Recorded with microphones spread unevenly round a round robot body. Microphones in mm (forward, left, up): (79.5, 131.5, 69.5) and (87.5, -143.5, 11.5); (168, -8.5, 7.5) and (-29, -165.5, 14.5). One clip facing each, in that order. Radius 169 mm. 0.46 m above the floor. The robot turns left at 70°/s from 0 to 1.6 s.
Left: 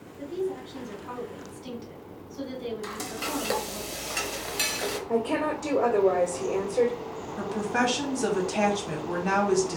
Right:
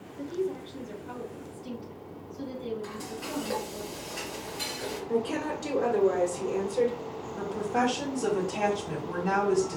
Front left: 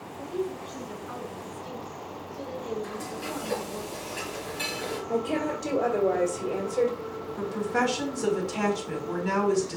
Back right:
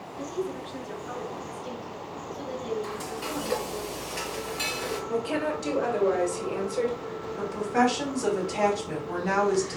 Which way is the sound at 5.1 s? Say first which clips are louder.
Left 2 dB, front left 1 dB; 10° right.